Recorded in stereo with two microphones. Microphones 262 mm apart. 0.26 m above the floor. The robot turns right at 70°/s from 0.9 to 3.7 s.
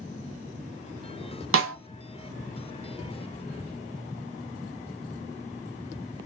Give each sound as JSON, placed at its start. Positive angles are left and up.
{"t": 1.5, "sound": "a snare drum", "side_deg": -55, "distance_m": 0.7}